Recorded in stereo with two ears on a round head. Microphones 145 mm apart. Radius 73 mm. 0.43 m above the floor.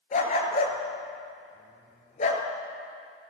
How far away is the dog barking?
About 3 m.